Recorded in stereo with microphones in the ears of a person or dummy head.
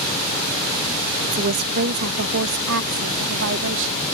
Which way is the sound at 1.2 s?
45° right (ahead or behind).